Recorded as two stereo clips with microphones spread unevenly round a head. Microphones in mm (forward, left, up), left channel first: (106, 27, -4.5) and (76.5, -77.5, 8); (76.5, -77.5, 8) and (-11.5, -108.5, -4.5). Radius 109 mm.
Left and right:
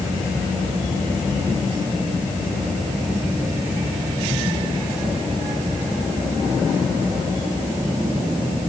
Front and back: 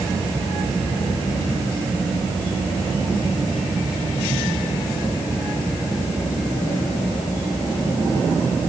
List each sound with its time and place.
Only background noise.